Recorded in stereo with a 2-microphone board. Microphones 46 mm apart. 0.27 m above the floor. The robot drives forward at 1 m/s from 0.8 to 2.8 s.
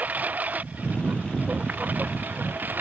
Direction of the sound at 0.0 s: 40° right (ahead or behind).